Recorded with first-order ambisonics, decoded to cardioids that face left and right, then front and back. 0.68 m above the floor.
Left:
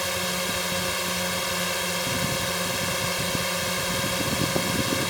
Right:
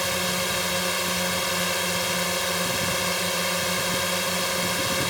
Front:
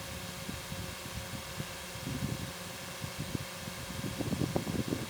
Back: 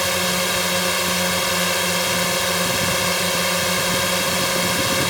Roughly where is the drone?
Behind.